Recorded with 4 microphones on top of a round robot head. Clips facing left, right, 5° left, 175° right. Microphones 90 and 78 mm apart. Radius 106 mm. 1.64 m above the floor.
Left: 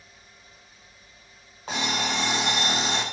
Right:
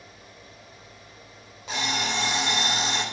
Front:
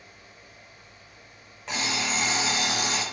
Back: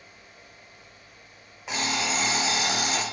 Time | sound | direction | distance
1.7 | an alarm clock | 105° left | 0.8 m